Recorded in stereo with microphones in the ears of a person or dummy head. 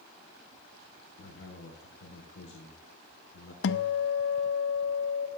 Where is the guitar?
75° left (ahead or behind), 0.7 m.